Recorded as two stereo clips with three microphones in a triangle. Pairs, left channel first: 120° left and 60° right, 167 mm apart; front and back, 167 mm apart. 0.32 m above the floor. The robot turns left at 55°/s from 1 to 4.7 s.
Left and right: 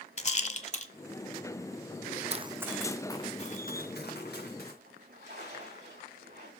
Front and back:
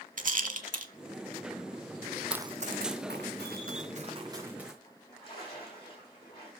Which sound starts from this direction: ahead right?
A splash, at 4.8 s.